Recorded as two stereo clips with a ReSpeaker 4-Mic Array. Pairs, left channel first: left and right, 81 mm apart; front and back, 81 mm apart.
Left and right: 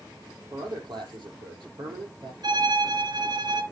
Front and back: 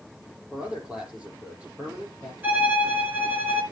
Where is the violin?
115° right, 4 m.